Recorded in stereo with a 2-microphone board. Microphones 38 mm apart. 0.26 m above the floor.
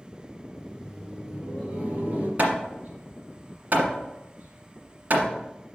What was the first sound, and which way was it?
Laughter, 10° left (ahead or behind).